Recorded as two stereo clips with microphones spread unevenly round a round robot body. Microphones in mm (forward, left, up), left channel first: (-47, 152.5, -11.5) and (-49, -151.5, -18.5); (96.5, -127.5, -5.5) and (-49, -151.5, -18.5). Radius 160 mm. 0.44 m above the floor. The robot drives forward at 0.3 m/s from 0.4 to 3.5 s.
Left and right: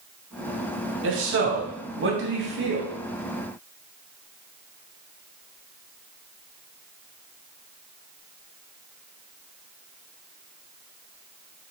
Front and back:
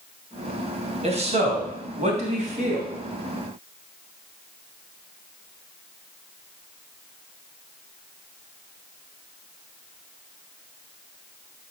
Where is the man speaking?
130° right, 3 m; by 2.9 s 140° right, 3.5 m.